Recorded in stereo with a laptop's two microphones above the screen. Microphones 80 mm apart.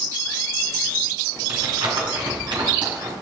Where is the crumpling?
75° right (ahead or behind), 7.5 m.